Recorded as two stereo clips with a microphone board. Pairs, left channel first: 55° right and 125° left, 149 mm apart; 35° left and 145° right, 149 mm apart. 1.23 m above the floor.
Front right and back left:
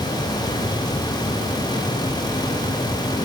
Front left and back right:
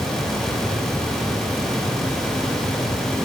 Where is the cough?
I don't hear a cough.